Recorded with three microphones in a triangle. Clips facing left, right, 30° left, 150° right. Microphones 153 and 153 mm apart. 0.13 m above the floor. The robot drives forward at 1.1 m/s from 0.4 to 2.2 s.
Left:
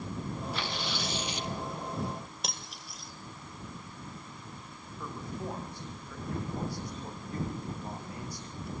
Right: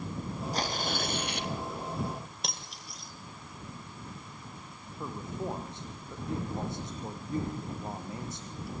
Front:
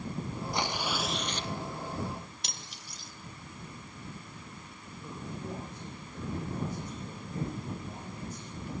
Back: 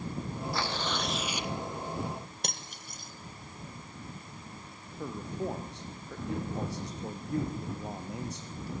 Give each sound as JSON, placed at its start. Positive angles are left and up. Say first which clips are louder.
{"t": 0.5, "sound": "tearing paper", "louder": "right 3 dB, front 1 dB", "azimuth_deg": -40, "distance_m": 1.8}
{"t": 2.4, "sound": "cutlery clinking", "louder": "even, back 5 dB", "azimuth_deg": 180, "distance_m": 2.0}
{"t": 5.0, "sound": "a man speaking", "louder": "right 2 dB, back 6 dB", "azimuth_deg": -160, "distance_m": 5.0}